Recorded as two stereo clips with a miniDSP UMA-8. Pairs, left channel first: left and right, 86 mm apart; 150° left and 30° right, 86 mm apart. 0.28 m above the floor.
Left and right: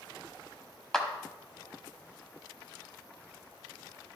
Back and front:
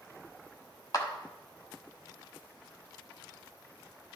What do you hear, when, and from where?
0.9 s a clap: 175° left, 1.1 m